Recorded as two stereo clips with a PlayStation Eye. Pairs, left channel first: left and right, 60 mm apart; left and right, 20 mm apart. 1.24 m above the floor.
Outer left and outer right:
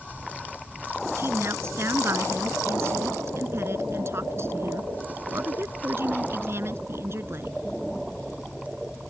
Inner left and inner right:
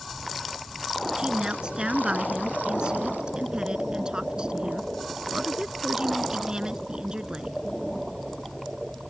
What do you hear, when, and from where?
1.2 s a woman speaking: 45° right (ahead or behind)